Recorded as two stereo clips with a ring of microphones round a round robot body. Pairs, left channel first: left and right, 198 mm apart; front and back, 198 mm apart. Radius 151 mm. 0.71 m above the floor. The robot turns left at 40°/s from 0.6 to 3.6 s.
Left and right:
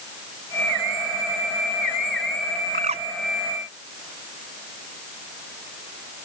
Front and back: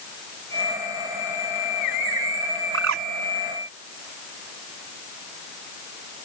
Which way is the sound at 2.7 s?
150° right.